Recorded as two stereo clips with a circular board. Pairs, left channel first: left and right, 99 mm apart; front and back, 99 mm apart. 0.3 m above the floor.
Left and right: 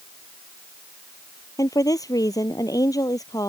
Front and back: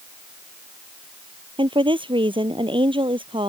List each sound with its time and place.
1.6 s a woman speaking: 145° left